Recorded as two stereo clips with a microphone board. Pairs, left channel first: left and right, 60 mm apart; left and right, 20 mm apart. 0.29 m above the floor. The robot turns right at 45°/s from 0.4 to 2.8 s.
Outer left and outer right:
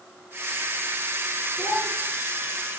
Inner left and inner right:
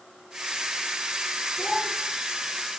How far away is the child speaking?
About 9 m.